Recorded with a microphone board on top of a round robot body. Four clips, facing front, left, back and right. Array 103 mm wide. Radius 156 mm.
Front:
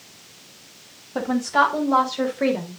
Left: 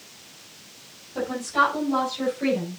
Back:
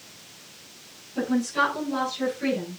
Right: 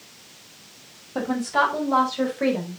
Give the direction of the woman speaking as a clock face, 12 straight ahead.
1 o'clock.